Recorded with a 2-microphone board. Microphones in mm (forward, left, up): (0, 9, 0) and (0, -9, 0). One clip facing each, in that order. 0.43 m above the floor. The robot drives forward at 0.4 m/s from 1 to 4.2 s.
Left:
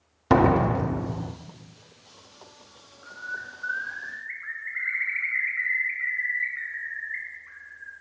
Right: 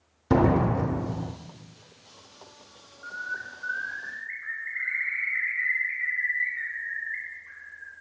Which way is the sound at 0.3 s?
45° left (ahead or behind).